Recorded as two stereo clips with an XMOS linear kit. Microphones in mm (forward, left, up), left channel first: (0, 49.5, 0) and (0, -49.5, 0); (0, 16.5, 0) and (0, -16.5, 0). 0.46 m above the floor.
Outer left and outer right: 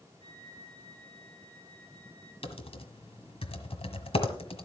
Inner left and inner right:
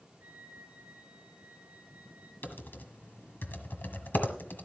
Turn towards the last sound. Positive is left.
turn(degrees=80)